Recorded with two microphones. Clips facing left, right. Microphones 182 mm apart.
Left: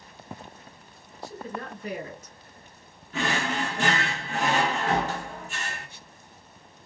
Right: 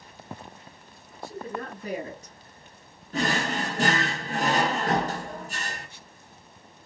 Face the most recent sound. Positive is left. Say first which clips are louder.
# right 1 dB
turn(degrees=-40)  # may be behind; listen again after turning